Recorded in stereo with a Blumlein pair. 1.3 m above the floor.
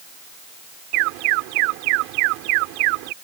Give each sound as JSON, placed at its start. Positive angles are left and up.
{"t": 0.9, "sound": "an alarm", "azimuth_deg": -45}